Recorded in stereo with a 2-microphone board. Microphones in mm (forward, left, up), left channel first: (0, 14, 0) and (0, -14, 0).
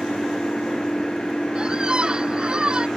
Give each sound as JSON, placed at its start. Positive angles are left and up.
{"t": 0.0, "sound": "an engine running", "side_deg": 35}
{"t": 1.6, "sound": "a squeak", "side_deg": -40}